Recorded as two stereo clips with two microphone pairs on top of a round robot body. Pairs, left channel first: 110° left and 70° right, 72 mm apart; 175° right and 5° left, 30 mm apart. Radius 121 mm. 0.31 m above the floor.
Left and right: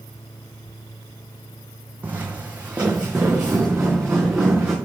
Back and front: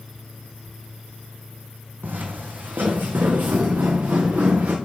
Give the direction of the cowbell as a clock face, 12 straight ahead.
No cowbell in this recording.